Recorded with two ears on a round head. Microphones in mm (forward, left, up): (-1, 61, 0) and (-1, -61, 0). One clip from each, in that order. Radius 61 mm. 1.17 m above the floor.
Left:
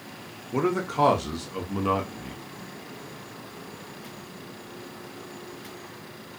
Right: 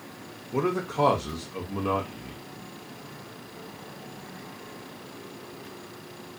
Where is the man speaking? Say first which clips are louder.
Left 1 dB; 20° left (ahead or behind), 0.6 m.